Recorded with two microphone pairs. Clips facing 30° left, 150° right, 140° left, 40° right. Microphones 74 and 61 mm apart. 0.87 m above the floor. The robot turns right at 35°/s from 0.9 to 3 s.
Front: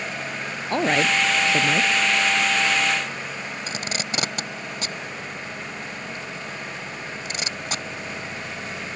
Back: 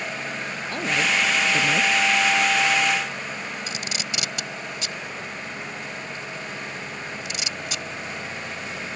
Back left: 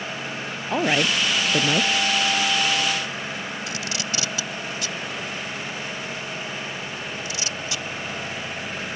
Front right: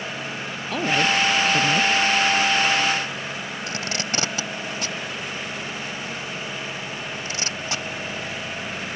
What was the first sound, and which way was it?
A woman speaking, 75° left.